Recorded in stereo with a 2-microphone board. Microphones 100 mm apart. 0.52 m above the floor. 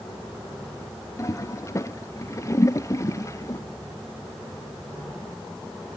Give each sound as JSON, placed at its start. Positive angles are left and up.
{"t": 1.2, "sound": "a toilet flushing", "side_deg": 30}